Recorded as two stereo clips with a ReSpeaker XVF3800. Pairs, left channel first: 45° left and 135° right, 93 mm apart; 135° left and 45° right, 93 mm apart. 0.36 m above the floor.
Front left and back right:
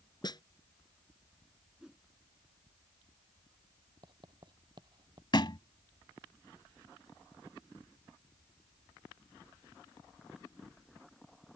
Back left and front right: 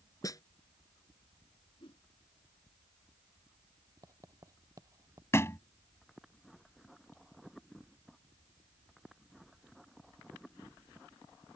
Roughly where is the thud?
Left.